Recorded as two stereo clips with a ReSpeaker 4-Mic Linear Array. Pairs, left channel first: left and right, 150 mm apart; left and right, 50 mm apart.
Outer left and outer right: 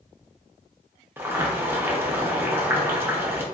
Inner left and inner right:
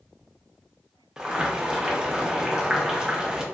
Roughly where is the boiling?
Centre.